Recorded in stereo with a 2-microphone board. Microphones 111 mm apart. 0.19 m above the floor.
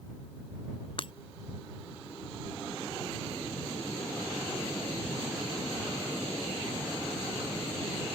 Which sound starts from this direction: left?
Breaking glass, at 1.0 s.